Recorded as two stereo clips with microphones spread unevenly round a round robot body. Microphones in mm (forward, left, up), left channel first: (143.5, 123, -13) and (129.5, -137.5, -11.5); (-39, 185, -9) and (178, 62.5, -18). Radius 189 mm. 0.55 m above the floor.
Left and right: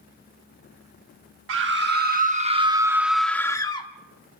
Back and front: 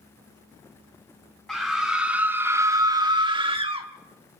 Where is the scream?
120° right, 1.2 m; by 3.9 s 25° left, 1.1 m.